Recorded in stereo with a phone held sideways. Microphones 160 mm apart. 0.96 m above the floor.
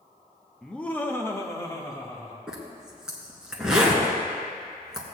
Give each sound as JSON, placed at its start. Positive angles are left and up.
{"t": 0.6, "sound": "laughter", "side_deg": 5, "distance_m": 0.7}
{"t": 2.5, "sound": "a zipper", "side_deg": -5, "distance_m": 1.7}